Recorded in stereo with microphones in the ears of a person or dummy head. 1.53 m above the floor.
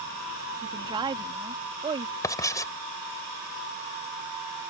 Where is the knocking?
I don't hear knocking.